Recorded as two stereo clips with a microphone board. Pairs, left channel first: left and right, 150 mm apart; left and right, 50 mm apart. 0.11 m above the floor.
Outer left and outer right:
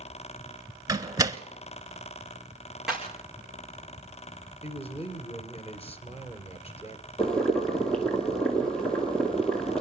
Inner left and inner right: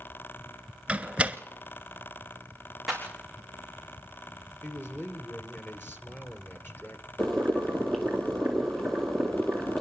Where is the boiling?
5° left (ahead or behind), 2.0 m.